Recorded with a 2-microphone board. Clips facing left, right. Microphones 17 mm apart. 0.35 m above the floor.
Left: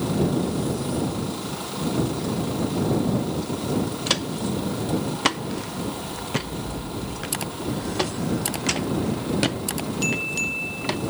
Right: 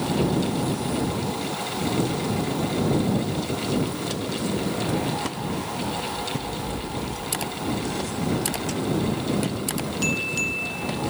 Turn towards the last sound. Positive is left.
turn(degrees=40)  # may be behind; listen again after turning